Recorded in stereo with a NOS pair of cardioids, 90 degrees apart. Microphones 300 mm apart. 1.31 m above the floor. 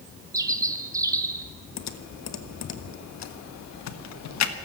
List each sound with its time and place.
0.3 s a bird: 10° right, 1.6 m
1.8 s typing on a keyboard: 65° left, 1.4 m